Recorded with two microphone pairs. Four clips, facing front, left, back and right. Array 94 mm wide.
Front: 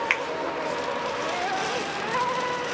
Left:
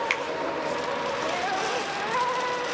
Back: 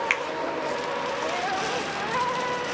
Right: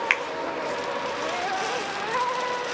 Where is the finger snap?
85° right, 0.9 m.